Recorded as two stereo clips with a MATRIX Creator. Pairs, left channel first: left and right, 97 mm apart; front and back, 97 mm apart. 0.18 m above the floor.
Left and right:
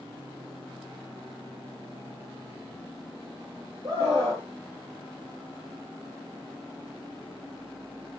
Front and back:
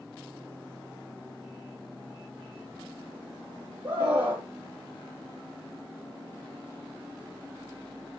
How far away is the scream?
About 5 m.